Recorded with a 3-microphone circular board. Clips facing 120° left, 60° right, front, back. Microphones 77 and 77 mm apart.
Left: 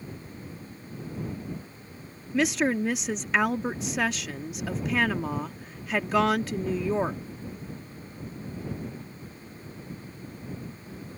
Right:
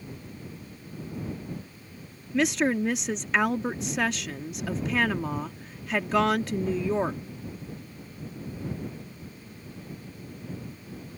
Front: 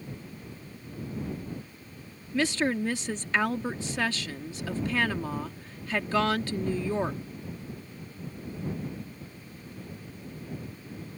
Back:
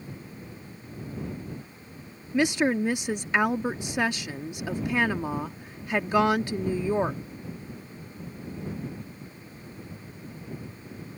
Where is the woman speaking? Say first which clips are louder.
Even, back 3 dB; 155° right.